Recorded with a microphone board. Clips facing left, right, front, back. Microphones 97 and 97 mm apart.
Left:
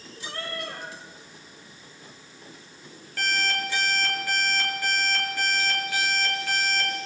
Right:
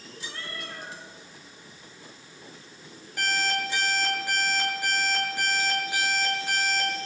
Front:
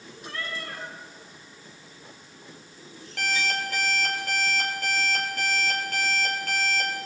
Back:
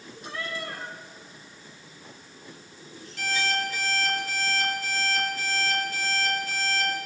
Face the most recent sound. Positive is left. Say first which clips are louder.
# even, even
turn(degrees=-20)